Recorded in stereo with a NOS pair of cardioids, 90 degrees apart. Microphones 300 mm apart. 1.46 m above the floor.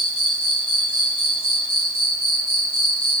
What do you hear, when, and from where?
0.0 s an insect: 45° right, 4 m